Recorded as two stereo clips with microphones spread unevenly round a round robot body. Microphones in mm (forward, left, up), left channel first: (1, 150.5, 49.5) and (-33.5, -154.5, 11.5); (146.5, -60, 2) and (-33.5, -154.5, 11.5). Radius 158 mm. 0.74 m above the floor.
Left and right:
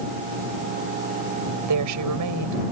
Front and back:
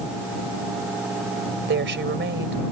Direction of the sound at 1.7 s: 125° right.